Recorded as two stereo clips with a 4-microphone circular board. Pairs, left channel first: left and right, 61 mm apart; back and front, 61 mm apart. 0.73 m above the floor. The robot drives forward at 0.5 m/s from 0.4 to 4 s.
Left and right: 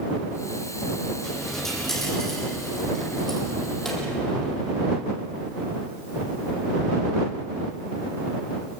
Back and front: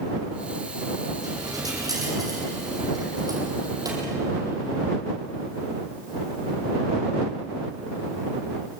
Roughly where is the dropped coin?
Ahead.